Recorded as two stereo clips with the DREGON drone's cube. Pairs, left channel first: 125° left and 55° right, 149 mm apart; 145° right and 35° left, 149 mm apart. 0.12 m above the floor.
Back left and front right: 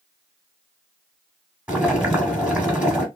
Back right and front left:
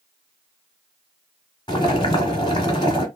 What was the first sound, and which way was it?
Boiling, 130° right.